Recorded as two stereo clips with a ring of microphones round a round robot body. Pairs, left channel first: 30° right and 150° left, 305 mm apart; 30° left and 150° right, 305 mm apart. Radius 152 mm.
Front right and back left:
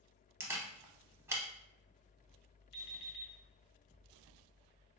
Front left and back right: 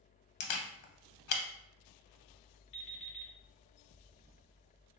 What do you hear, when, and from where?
0.4 s a camera shutter: 70° left, 0.5 m
2.7 s an alarm clock: 5° left, 1.0 m